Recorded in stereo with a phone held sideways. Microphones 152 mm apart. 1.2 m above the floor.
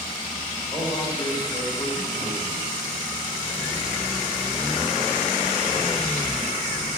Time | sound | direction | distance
0.7 | a man speaking | 30° left (ahead or behind) | 4.5 m